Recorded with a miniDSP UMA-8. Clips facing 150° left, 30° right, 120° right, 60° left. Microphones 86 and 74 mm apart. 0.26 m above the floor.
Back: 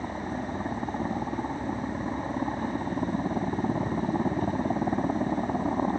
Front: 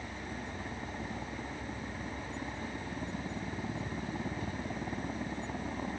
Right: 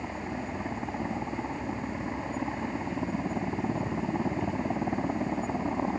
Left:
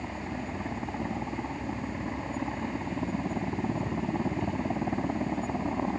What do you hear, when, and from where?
0.0 s a helicopter: 155° left